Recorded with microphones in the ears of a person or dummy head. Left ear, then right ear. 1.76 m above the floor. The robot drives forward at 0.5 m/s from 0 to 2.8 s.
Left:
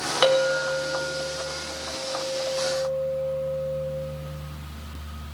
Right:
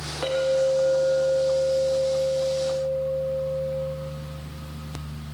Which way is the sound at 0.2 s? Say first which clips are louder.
Left 1 dB; 60° left (ahead or behind).